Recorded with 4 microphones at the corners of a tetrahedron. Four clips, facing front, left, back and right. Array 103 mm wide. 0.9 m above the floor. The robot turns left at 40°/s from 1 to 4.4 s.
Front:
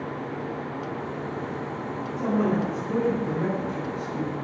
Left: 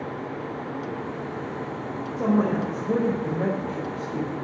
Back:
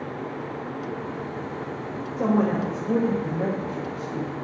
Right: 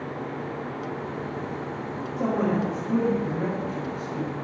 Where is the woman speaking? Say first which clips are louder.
Left 2 dB, back 2 dB; 160° left, 5 m; by 4.3 s 75° left, 5 m.